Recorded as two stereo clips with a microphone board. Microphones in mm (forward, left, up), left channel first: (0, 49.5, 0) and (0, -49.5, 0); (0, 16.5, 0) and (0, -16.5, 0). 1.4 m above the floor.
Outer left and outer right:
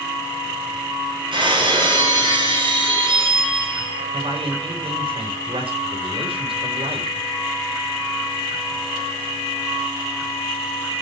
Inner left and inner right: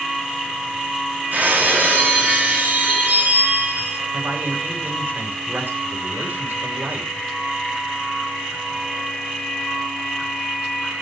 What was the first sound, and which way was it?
Breaking glass, 55° right (ahead or behind).